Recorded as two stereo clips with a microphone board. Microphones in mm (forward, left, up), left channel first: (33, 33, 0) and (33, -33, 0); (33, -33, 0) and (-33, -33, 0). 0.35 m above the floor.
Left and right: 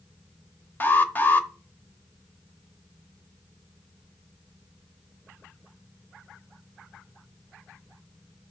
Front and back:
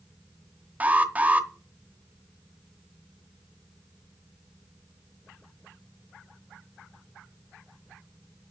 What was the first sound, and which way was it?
An alarm, 130° left.